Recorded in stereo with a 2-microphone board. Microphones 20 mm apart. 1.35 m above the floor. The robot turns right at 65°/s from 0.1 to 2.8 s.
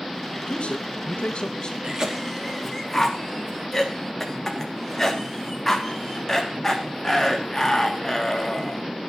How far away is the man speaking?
About 1.6 m.